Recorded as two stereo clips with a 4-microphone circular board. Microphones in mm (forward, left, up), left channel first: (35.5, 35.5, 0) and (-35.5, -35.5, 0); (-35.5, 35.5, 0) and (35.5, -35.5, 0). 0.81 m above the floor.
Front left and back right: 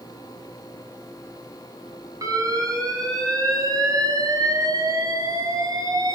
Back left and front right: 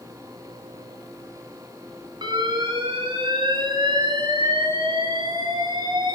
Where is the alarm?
85° right, 6.5 m.